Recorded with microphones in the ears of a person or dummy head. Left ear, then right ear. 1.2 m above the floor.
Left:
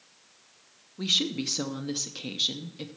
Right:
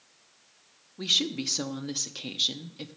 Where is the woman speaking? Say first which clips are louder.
Even; 10° right (ahead or behind), 0.6 m.